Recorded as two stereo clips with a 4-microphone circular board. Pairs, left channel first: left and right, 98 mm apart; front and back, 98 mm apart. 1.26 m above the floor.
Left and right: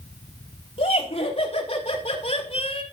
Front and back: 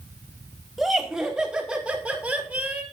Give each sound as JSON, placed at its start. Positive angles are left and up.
{"t": 0.8, "sound": "laughter", "azimuth_deg": 90, "distance_m": 4.0}